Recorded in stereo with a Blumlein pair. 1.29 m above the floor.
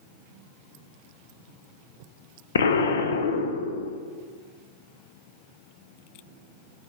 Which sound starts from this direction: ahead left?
An explosion, at 2.5 s.